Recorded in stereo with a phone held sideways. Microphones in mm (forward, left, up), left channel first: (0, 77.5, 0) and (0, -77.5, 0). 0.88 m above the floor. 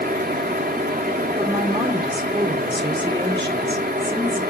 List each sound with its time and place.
0.0 s a fan: 70° right (ahead or behind), 1.5 m
1.4 s a woman speaking: 30° right (ahead or behind), 1.9 m